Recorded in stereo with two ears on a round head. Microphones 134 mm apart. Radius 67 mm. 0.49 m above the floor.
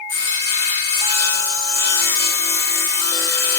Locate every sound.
0.1 s sawing: 20° left (ahead or behind), 8 m